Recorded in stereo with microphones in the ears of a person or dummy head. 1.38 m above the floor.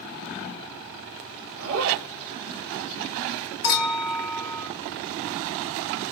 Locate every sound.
1.6 s a zipper: 65° right (ahead or behind), 2.5 m
3.6 s a clink: 50° left (ahead or behind), 1.4 m